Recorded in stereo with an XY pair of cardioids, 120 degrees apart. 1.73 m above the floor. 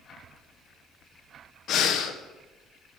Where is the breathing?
70° left, 1.3 m.